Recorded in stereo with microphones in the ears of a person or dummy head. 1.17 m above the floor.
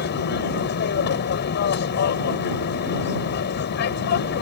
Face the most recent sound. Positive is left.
turn(degrees=55)  # may be behind; listen again after turning